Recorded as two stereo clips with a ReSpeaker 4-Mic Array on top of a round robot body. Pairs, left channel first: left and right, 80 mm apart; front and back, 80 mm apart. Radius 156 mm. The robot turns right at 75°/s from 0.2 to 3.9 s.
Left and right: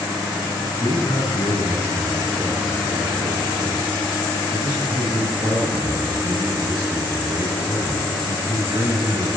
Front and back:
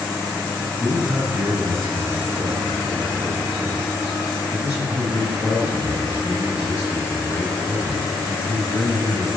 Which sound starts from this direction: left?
A man speaking, at 0.8 s.